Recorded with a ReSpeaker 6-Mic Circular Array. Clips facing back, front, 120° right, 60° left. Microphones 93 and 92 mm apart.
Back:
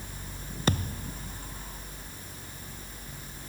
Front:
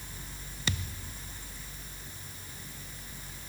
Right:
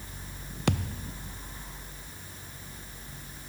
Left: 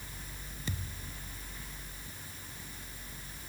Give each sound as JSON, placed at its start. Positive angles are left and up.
{"t": 0.7, "sound": "a thud", "azimuth_deg": -135}